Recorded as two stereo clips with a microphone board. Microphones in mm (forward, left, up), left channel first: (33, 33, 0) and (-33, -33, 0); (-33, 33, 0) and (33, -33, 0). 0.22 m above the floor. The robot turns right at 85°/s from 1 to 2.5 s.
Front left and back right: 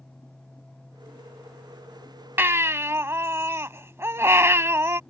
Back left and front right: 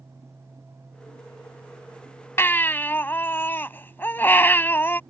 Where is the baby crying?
175° left; by 5.0 s 175° right.